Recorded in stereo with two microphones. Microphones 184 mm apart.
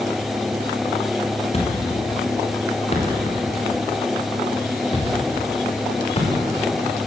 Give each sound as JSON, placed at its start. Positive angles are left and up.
{"t": 1.5, "sound": "a thud", "side_deg": 35, "distance_m": 6.5}